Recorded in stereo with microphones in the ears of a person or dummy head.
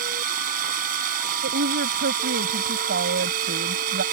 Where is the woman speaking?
55° right (ahead or behind).